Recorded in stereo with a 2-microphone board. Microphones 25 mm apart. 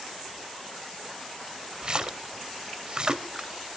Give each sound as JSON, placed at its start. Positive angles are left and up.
{"t": 1.8, "sound": "a splash", "side_deg": -40, "distance_m": 1.1}